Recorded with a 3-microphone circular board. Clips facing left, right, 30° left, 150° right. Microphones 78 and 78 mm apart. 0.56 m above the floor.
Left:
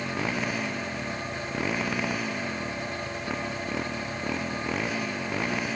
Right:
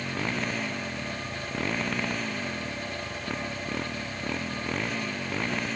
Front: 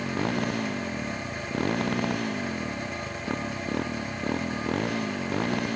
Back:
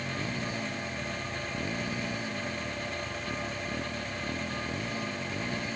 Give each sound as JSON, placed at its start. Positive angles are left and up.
{"t": 0.0, "sound": "a motorcycle", "azimuth_deg": 5}